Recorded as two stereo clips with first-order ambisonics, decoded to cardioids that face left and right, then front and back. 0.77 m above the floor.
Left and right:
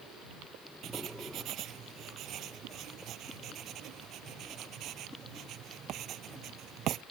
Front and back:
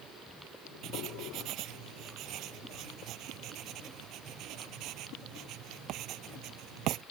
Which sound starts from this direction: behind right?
Writing, at 0.8 s.